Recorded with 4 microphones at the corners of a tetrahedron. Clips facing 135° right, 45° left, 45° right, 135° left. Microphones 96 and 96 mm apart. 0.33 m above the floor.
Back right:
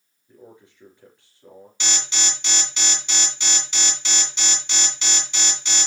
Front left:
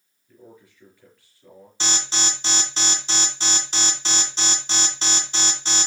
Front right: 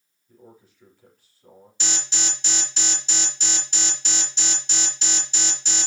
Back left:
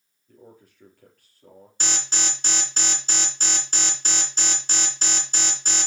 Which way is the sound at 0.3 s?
160° left.